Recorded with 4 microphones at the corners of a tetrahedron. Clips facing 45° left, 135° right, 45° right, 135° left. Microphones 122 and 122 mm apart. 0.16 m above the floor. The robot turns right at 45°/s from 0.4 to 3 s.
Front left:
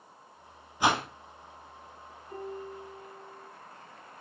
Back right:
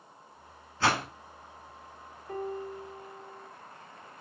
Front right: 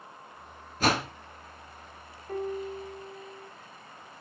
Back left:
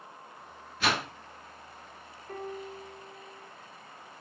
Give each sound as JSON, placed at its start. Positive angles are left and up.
{"t": 0.8, "sound": "a whoosh", "azimuth_deg": -25, "distance_m": 1.4}
{"t": 2.3, "sound": "a piano", "azimuth_deg": -130, "distance_m": 2.5}